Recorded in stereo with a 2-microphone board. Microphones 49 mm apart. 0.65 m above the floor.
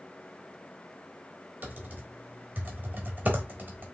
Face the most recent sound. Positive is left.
turn(degrees=-35)  # may be behind; listen again after turning